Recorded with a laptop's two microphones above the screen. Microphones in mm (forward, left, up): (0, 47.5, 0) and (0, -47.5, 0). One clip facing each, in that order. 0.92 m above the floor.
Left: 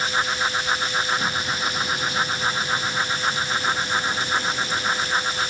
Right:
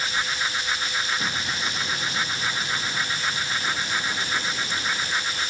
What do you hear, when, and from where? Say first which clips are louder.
0.0 s a fan: left 4 dB; 35° left (ahead or behind)
1.2 s an explosion: left 3 dB; 5° left (ahead or behind)